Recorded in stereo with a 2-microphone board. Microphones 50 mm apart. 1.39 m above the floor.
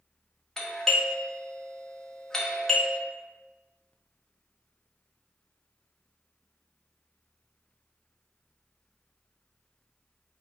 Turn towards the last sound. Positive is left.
turn(degrees=10)  # may be behind; listen again after turning